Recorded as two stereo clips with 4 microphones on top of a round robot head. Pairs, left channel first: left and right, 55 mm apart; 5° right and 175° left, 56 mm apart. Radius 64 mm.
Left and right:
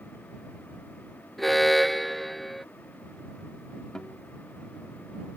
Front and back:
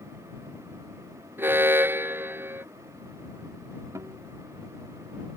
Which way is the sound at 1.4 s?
175° left.